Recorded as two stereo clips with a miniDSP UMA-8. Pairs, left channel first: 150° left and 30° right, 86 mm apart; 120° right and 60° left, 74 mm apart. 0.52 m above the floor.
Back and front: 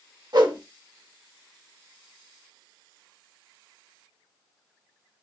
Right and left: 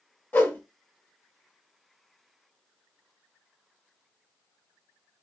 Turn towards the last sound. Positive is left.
turn(degrees=-60)